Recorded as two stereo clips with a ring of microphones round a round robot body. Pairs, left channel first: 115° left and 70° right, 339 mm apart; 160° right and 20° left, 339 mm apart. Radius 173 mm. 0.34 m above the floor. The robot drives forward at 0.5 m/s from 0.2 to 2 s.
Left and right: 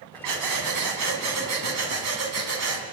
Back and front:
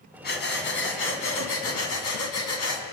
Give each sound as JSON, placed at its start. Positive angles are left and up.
{"t": 0.2, "sound": "breathing", "azimuth_deg": -95, "distance_m": 3.0}